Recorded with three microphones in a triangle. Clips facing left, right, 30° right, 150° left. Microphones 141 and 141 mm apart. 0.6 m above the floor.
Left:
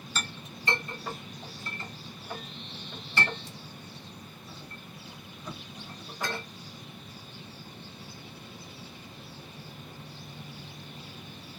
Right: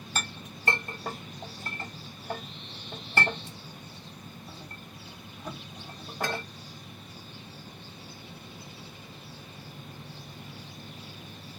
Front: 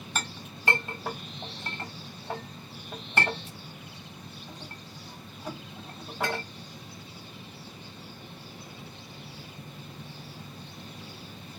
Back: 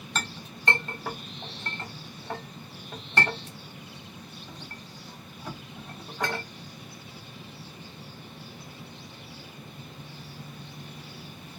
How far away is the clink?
About 1.1 m.